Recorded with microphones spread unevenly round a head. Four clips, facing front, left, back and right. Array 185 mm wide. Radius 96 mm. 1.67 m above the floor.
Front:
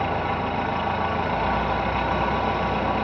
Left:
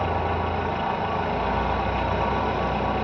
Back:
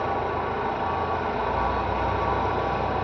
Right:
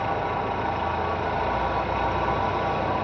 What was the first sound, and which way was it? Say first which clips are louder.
An engine running: left 1 dB, front 1 dB; 40° left.